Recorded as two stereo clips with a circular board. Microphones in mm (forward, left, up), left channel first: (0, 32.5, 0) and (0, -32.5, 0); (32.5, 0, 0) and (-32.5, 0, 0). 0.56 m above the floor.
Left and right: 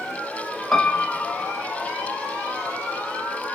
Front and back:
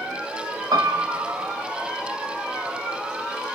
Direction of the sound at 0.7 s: 175° left.